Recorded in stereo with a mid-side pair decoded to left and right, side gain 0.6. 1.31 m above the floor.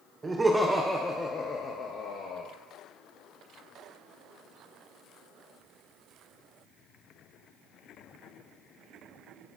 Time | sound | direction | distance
0.2 | laughter | 20° right | 0.8 m